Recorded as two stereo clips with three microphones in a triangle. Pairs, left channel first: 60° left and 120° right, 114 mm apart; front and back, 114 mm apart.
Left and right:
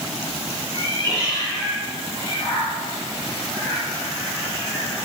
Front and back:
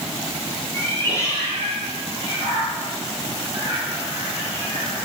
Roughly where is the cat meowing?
Right.